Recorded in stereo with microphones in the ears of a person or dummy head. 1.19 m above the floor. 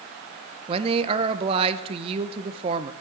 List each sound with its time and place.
0.7 s a man speaking: 25° right (ahead or behind), 0.6 m